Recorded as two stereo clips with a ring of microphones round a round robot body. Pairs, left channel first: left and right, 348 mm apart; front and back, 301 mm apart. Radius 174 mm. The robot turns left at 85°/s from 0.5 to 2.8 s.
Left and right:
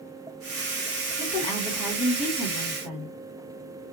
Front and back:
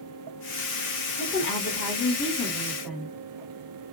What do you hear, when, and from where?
1.2 s a woman speaking: 45° left, 1.1 m; by 3.1 s 90° right, 1.1 m